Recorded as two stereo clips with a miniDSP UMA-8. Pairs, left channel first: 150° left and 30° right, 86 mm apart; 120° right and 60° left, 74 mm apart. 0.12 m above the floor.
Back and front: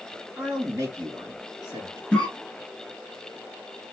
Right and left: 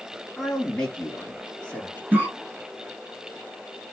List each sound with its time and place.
0.4 s a man speaking: 45° right, 1.4 m; by 2.0 s 55° right, 1.9 m
2.1 s a cough: 85° left, 1.2 m